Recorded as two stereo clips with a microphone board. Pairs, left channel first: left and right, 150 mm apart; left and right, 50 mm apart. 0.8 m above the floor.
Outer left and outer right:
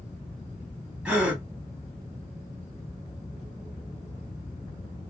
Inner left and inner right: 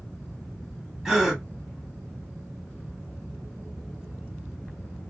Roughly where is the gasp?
Centre.